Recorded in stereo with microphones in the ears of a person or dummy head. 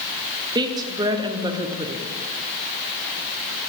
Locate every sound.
0.6 s a woman speaking: 20° right (ahead or behind), 0.7 m